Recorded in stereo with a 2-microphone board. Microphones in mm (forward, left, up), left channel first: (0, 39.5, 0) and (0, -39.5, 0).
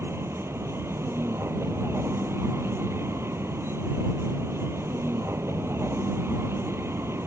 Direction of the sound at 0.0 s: 30° right (ahead or behind).